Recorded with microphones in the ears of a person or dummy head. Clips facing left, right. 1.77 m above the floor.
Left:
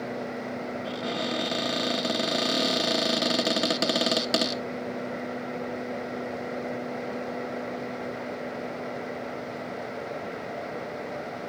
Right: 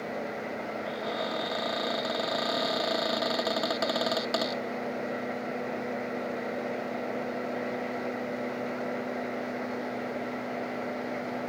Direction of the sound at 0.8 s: 50° left (ahead or behind).